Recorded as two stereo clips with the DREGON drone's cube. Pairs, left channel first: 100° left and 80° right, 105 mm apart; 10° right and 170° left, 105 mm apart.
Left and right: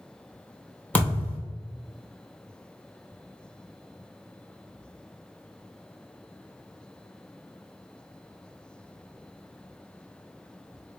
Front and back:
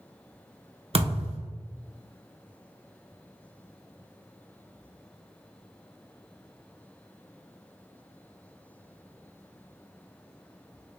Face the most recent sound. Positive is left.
turn(degrees=175)